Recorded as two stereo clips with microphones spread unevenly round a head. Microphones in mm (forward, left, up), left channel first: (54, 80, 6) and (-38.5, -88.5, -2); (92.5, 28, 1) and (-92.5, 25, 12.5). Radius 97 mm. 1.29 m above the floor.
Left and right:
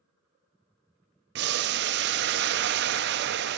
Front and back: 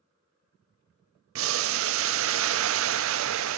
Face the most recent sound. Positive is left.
turn(degrees=-155)